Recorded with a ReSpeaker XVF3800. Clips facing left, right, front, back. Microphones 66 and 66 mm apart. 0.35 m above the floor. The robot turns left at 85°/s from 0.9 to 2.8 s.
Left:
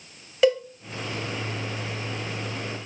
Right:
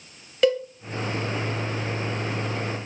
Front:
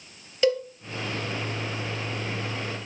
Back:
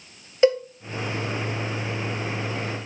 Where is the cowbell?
170° left, 0.9 m.